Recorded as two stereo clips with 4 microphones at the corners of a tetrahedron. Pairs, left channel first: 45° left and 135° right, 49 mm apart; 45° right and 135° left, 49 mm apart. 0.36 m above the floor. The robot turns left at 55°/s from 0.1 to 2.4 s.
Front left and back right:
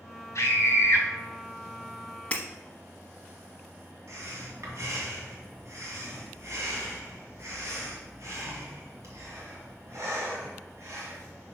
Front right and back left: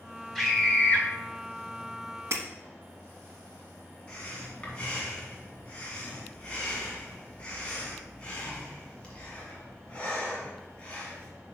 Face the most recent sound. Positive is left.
turn(degrees=-115)